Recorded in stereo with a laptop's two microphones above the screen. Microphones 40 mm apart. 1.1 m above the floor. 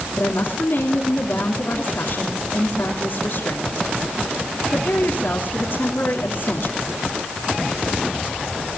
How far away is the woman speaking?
About 3 m.